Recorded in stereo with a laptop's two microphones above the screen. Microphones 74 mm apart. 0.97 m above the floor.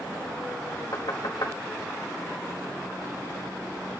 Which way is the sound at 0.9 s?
60° left (ahead or behind).